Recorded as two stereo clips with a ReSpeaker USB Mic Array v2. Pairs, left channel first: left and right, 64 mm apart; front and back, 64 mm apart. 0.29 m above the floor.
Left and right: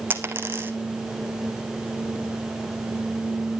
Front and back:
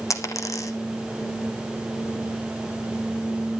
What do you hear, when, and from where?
0.1 s a dropped coin: 35° right, 1.3 m